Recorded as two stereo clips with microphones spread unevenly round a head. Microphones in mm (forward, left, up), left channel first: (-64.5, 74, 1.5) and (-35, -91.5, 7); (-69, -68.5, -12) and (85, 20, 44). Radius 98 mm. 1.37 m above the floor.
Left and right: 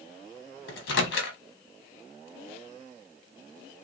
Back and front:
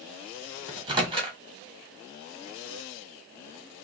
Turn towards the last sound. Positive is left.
turn(degrees=100)